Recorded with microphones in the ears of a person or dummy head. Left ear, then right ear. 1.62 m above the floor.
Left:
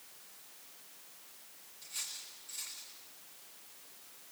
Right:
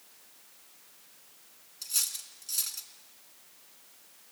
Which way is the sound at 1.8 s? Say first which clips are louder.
Right 9 dB; 60° right (ahead or behind).